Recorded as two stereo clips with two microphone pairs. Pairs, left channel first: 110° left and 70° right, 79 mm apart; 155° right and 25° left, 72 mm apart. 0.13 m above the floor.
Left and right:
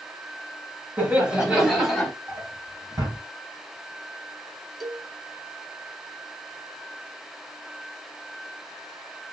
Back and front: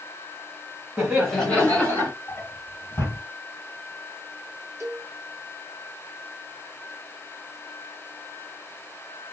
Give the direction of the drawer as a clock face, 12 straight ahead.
3 o'clock.